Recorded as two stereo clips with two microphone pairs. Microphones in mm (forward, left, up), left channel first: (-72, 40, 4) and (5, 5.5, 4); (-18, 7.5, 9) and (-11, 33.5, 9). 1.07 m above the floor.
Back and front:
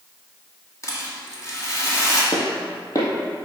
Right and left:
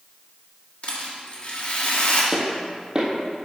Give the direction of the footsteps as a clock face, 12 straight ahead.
8 o'clock.